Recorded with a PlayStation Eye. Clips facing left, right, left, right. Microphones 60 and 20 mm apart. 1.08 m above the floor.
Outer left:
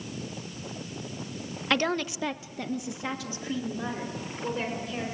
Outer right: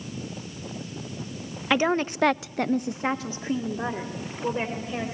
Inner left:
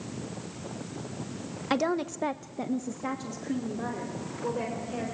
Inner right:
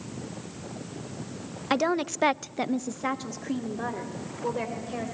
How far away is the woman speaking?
About 1.0 m.